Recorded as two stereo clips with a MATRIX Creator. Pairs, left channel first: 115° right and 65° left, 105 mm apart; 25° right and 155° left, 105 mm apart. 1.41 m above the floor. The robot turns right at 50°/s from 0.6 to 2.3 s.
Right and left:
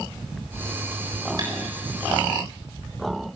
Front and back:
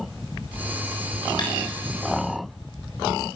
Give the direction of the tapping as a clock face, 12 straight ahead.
11 o'clock.